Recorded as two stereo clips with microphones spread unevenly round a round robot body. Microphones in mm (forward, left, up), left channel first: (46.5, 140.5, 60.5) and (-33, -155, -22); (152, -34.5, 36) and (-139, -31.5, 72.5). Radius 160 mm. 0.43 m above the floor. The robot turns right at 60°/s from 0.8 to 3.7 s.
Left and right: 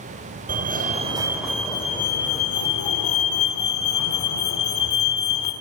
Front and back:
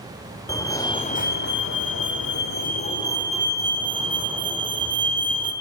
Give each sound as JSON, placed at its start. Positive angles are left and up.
{"t": 0.5, "sound": "a fire alarm", "azimuth_deg": -70, "distance_m": 3.0}